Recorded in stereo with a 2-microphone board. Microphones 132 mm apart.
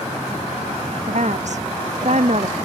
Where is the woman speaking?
65° right (ahead or behind).